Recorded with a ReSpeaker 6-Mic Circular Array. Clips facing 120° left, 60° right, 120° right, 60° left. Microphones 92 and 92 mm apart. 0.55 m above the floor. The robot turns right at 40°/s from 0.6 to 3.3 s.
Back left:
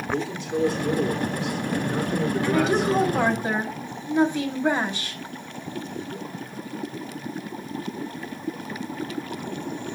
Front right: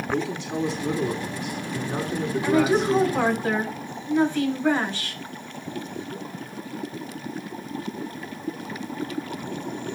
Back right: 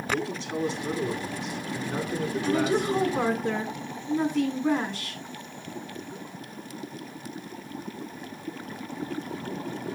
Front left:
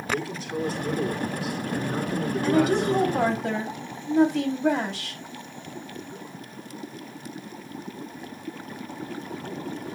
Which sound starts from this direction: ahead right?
A man speaking, at 0.1 s.